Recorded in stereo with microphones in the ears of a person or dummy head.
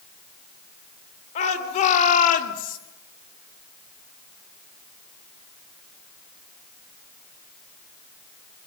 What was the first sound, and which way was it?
A shout, 45° left (ahead or behind).